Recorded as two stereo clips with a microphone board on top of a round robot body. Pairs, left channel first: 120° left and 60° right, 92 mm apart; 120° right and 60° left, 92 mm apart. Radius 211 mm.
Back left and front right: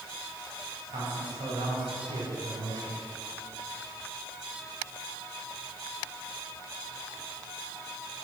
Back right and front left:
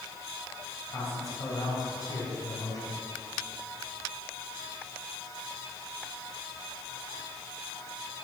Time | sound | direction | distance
0.9 | a man speaking | 70° right | 4 m